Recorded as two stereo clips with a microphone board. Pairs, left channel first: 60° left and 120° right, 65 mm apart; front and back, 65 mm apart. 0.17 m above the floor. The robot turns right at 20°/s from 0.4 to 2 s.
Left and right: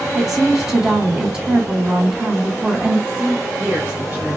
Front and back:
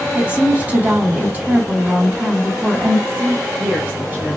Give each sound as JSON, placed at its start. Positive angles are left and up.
{"t": 0.1, "sound": "a woman speaking", "azimuth_deg": 165, "distance_m": 1.4}
{"t": 3.1, "sound": "a woman speaking", "azimuth_deg": -150, "distance_m": 1.8}